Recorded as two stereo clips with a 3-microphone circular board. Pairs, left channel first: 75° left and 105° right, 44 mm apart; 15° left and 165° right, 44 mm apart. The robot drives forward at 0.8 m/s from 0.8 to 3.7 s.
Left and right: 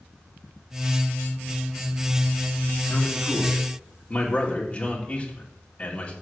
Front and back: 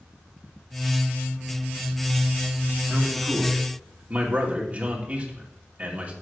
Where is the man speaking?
125° left, 2.5 m; by 6.1 s 140° left, 3 m.